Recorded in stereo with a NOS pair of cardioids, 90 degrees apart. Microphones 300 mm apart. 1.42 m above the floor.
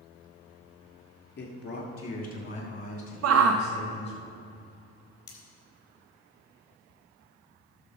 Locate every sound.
1.4 s a man speaking: 35° left, 3.5 m; by 4.2 s 20° left, 5 m
3.2 s a shout: 55° right, 0.6 m
5.3 s cutlery clinking: 35° left, 4 m